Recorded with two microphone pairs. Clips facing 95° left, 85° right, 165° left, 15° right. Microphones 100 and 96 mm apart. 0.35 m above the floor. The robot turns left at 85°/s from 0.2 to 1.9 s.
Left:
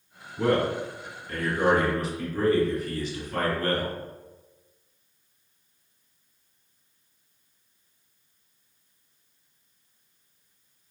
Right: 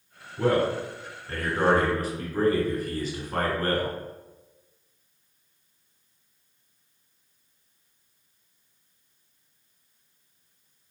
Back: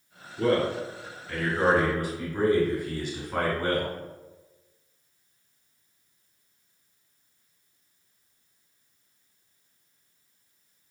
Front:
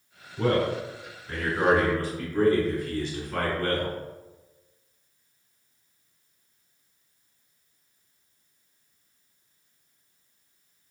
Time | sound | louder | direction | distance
0.4 | a man speaking | right 1 dB, even | straight ahead | 1.7 m